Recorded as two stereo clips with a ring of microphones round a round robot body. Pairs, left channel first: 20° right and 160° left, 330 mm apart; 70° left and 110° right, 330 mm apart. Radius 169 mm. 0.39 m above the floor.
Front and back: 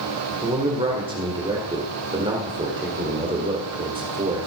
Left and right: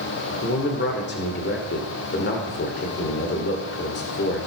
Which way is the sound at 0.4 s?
95° left.